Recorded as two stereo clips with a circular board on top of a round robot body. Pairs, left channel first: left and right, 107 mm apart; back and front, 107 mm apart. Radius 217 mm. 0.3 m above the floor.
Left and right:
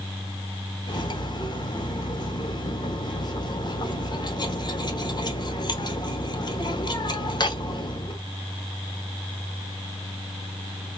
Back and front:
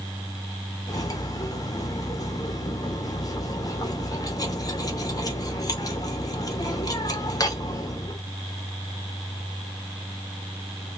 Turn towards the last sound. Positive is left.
turn(degrees=130)